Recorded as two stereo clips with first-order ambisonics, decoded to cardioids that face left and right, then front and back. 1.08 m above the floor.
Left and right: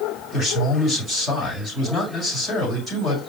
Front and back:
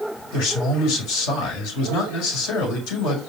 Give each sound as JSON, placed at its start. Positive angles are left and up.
{"t": 0.3, "sound": "a man speaking", "azimuth_deg": -5, "distance_m": 5.5}